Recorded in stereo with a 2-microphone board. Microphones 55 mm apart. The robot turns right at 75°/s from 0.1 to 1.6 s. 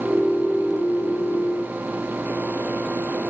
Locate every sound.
Only background noise.